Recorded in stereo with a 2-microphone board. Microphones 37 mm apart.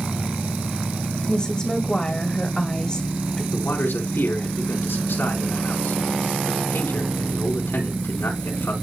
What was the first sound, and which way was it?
A woman speaking, 25° left (ahead or behind).